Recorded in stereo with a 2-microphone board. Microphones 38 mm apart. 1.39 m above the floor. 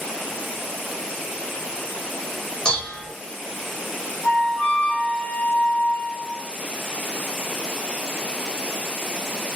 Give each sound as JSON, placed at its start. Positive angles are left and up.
{"t": 2.6, "sound": "dishes clattering", "side_deg": 20, "distance_m": 0.7}
{"t": 4.2, "sound": "a flute", "side_deg": 65, "distance_m": 0.9}